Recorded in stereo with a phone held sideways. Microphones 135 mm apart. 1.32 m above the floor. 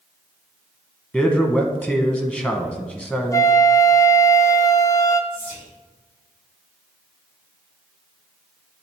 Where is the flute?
25° left (ahead or behind), 0.5 m.